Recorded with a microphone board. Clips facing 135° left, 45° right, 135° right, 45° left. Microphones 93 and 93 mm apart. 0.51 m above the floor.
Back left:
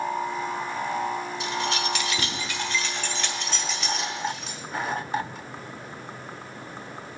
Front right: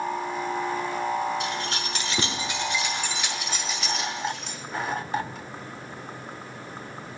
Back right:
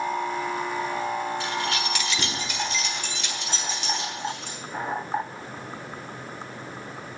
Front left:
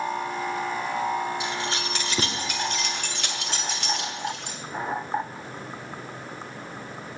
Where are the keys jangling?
25° right, 1.1 m; by 4.6 s 50° left, 2.5 m.